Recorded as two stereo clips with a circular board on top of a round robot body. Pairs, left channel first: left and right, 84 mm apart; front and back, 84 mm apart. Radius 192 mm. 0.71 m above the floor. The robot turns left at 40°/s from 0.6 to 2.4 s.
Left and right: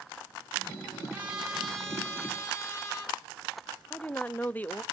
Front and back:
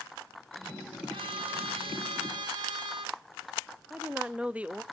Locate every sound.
1.1 s a trumpet: 160° right, 4 m; by 3.1 s 150° left, 4 m
3.9 s a woman speaking: 125° left, 0.8 m